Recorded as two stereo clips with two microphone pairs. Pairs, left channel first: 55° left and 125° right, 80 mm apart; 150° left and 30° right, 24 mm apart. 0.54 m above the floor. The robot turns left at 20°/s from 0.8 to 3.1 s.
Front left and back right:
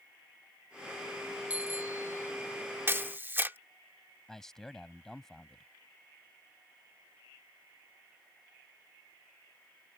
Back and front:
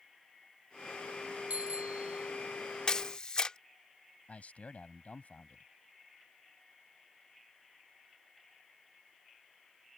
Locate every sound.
1.5 s a bicycle bell: 55° right; by 2.3 s 70° right
2.9 s a camera shutter: 175° right; by 3.6 s straight behind
4.3 s a man speaking: 140° left